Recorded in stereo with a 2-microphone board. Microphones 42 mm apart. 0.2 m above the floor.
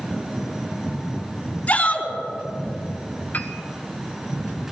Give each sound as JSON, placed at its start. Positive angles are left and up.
{"t": 1.7, "sound": "a shout", "side_deg": 40, "distance_m": 2.5}
{"t": 3.3, "sound": "a piano", "side_deg": 45, "distance_m": 1.1}